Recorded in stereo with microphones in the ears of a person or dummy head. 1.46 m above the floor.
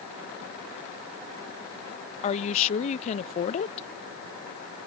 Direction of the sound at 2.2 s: 35° left (ahead or behind).